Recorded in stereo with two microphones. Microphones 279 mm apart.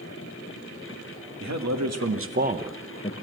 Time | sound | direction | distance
1.4 | a man speaking | 80° right | 2 m